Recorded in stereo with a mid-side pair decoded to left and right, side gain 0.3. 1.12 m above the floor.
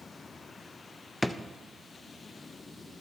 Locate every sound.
1.2 s a drawer: 15° left, 0.5 m